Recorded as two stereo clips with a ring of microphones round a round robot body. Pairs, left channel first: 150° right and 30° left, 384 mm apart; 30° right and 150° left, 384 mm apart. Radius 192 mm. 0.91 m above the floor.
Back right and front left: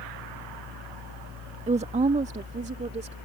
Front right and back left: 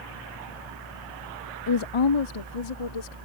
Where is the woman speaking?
40° right; by 3.2 s 45° right.